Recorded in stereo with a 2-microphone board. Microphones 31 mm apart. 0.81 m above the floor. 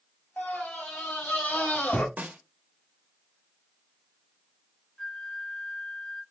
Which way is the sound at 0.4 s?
85° left.